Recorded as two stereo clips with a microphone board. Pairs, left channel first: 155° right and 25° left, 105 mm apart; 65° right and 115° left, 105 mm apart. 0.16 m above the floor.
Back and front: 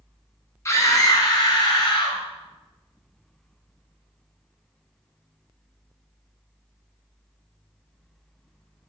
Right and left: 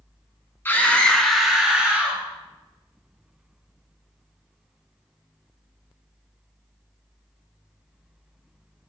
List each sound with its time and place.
0.7 s a scream: 120° right, 1.3 m; by 2.2 s straight behind, 1.8 m